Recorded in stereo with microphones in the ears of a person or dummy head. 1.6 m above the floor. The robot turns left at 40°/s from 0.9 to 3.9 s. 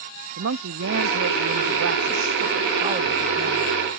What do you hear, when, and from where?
0.4 s a woman speaking: 65° right; by 3.7 s straight behind